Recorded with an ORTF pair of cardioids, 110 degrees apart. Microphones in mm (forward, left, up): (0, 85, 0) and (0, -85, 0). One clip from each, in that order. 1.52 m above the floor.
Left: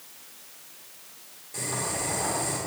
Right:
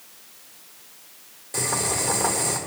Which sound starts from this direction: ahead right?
Boiling, at 1.5 s.